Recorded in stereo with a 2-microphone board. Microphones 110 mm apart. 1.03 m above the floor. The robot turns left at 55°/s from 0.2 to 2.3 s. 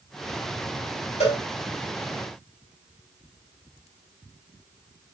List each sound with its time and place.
1.2 s a cowbell: 75° left (ahead or behind), 2.5 m; by 1.4 s 65° left (ahead or behind), 2.5 m